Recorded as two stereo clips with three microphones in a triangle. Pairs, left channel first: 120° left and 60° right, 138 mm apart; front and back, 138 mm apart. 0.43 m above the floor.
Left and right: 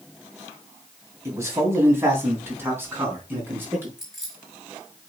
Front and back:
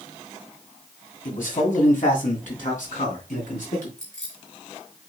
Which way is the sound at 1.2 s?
10° left.